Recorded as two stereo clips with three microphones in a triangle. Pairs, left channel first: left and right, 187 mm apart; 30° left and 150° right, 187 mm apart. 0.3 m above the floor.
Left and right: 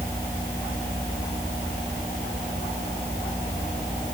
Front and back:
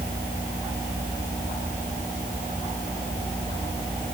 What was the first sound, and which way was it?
Only background noise.